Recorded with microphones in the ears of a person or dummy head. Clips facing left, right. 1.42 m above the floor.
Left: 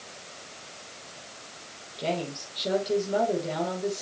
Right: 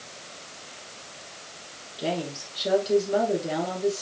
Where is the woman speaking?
5° right (ahead or behind), 5 m.